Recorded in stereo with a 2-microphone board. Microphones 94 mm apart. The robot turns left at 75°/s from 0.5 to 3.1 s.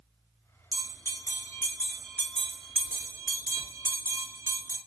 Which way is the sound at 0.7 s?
25° left (ahead or behind).